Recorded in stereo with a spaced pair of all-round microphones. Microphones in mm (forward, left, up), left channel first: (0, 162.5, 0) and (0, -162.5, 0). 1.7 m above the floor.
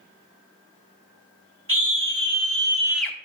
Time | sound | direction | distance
1.7 | a scream | 80° right | 1.7 m